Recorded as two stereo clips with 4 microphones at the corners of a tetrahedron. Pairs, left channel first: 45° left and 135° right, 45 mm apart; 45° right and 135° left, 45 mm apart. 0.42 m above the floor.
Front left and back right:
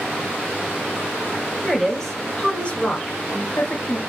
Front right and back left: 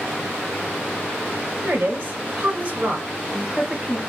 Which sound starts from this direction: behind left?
A woman speaking, at 1.6 s.